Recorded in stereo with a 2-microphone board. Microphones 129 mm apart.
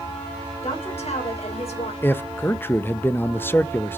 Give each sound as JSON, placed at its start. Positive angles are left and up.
{"t": 0.6, "sound": "a woman speaking", "side_deg": 60, "distance_m": 3.5}
{"t": 2.0, "sound": "a man speaking", "side_deg": 20, "distance_m": 0.6}